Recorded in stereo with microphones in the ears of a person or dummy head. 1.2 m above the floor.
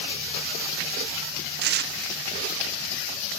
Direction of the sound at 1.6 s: 50° right (ahead or behind).